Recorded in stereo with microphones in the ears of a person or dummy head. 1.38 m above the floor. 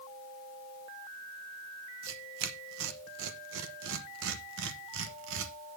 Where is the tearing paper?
70° right (ahead or behind), 1.0 m.